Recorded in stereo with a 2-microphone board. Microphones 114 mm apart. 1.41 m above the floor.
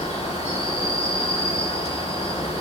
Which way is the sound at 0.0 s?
65° left (ahead or behind).